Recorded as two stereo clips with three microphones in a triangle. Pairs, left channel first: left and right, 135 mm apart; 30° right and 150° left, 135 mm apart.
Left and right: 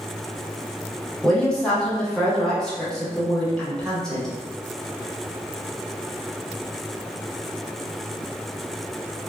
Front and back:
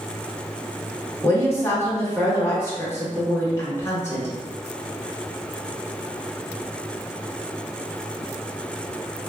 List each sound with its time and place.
1.2 s a woman speaking: 10° left, 0.9 m